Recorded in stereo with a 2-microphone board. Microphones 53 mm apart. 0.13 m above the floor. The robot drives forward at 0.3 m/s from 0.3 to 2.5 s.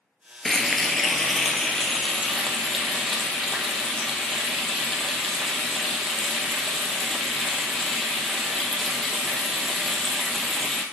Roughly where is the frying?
Centre.